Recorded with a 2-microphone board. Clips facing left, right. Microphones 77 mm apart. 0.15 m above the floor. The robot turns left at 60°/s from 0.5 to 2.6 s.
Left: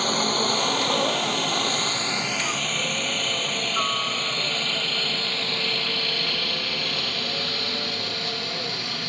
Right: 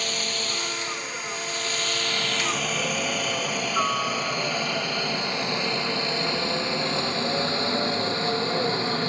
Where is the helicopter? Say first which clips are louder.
Left 7 dB; 45° left (ahead or behind); by 9.1 s 30° right (ahead or behind).